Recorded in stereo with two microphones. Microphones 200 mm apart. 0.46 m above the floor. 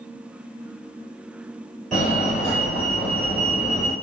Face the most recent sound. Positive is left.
turn(degrees=0)  # may be behind; listen again after turning